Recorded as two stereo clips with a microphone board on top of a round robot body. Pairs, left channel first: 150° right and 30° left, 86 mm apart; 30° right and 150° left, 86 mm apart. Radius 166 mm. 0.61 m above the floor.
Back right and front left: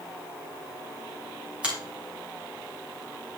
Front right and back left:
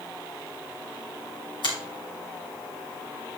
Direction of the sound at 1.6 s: 45° right.